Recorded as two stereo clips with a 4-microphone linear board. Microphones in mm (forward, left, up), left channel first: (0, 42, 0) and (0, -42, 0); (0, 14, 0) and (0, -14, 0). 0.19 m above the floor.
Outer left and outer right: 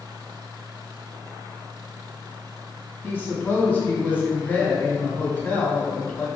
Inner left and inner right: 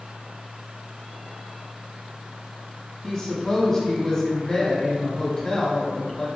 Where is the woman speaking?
20° left (ahead or behind), 1.2 m.